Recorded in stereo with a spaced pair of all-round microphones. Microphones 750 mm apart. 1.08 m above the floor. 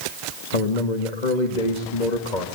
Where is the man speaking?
70° left (ahead or behind), 2 m.